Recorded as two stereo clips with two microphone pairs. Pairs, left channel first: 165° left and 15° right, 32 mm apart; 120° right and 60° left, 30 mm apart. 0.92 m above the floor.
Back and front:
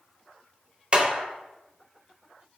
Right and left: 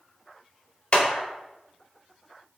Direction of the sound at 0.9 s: 70° right.